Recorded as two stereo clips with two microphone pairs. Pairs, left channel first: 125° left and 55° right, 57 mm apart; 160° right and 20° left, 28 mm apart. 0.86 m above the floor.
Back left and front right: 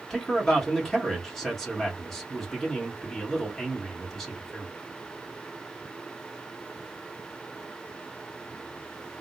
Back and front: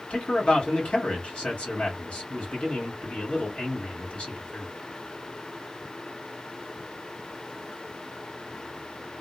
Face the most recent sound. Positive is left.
turn(degrees=-150)